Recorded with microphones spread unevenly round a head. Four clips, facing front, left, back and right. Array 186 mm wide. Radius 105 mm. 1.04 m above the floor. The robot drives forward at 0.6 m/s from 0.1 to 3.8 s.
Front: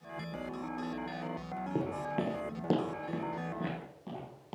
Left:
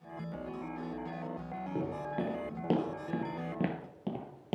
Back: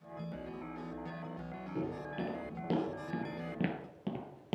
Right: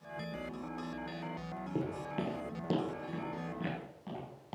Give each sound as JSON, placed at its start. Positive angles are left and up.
{"t": 1.8, "sound": "footsteps", "azimuth_deg": 15, "distance_m": 2.0}